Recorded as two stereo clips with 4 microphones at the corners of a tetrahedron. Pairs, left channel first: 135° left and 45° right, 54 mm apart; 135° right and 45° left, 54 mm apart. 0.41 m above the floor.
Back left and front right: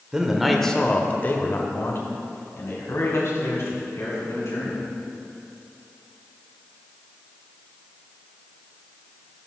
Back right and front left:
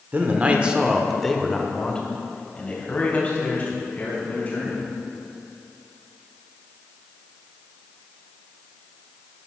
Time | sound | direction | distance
0.1 | a man speaking | 20° left | 1.0 m